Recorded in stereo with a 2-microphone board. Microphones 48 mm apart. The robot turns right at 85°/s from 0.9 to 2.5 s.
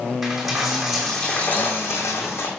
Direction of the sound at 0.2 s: 5° right.